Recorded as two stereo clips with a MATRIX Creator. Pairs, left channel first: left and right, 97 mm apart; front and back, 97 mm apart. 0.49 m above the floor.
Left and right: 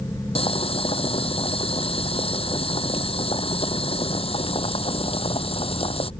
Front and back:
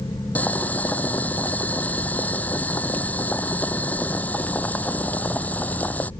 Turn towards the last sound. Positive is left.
turn(degrees=75)